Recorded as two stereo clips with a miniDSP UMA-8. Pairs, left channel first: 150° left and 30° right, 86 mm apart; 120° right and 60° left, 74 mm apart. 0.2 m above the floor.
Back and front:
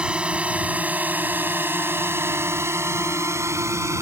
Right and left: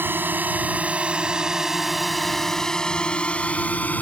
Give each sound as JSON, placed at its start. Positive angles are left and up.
{"t": 0.0, "sound": "a drone", "azimuth_deg": 35}